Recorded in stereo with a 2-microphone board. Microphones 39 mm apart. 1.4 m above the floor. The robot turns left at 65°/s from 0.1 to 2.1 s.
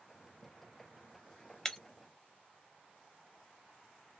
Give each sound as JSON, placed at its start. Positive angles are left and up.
{"t": 1.6, "sound": "breaking glass", "side_deg": 15, "distance_m": 0.6}